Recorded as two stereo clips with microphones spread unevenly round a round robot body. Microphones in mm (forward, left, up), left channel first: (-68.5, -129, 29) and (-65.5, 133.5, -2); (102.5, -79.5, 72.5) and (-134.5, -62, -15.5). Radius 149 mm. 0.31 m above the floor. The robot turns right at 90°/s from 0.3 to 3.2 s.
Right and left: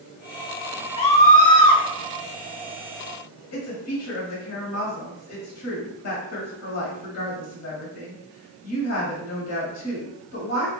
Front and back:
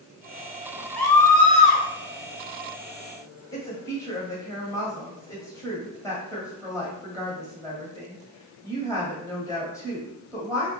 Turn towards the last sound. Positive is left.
turn(degrees=-95)